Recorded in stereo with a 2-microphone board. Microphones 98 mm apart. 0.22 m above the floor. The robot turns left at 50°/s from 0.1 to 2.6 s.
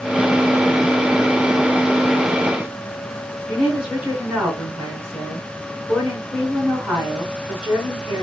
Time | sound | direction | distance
3.5 | a woman speaking | 5° right (ahead or behind) | 2.5 m